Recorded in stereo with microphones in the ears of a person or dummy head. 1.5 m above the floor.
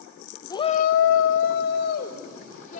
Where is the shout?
15° left (ahead or behind), 0.9 m; by 2.8 s 45° left (ahead or behind), 3 m.